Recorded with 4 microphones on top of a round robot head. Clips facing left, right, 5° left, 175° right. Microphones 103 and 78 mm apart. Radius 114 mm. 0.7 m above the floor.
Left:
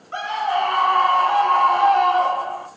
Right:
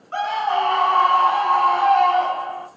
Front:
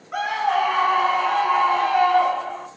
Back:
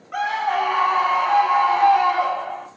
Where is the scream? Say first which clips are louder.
Right 1 dB, even; 70° right, 1.4 m; by 2.7 s 125° left, 1.2 m.